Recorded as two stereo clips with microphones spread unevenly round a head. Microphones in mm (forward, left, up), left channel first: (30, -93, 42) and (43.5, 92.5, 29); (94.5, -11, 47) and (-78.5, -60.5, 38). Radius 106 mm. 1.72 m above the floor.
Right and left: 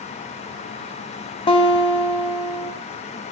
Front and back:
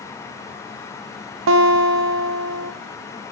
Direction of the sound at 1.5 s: 160° right.